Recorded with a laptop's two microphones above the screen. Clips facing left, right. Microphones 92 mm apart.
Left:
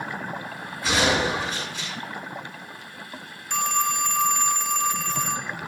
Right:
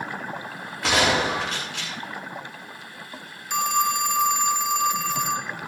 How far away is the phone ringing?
About 0.6 m.